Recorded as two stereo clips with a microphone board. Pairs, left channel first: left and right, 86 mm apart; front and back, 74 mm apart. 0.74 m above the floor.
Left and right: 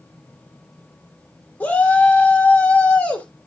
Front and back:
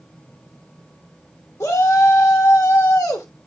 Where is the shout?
40° left, 1.3 m.